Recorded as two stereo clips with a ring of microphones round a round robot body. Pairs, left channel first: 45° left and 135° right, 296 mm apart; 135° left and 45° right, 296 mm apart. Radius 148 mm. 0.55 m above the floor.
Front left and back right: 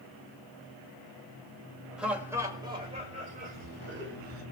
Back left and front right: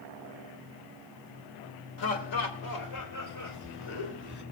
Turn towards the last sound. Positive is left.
turn(degrees=180)